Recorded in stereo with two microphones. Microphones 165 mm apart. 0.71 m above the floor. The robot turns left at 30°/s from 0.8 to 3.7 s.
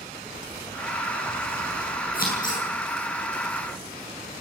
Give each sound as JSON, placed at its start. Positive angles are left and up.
{"t": 2.1, "sound": "scissors", "side_deg": 65, "distance_m": 9.5}